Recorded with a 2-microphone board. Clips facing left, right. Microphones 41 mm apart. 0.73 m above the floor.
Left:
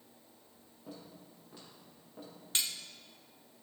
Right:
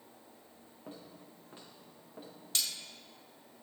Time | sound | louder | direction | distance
0.9 | footsteps | even | 35° right (ahead or behind) | 4.5 m
2.5 | cutlery clinking | left 1 dB | 30° left (ahead or behind) | 0.8 m